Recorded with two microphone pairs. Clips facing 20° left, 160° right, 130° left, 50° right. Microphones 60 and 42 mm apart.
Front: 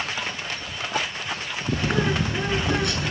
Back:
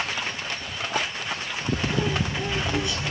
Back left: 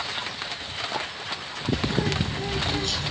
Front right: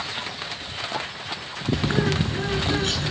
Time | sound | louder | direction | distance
1.7 | a bird | front 2 dB, front right 3 dB | 5° right | 7.5 m